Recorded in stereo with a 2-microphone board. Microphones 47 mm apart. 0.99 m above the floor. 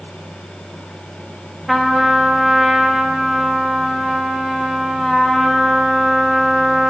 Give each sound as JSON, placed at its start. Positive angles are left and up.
{"t": 1.7, "sound": "a trumpet", "side_deg": 0, "distance_m": 0.6}